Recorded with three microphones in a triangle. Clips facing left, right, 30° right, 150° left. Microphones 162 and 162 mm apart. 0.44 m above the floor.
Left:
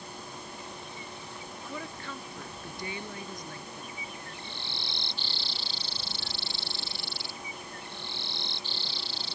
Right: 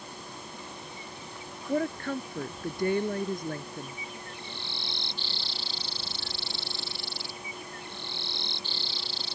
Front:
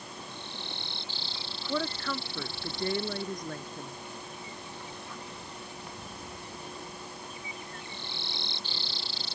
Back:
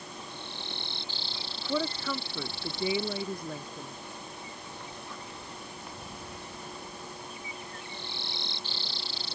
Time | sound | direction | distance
1.7 | a woman speaking | 125° right | ?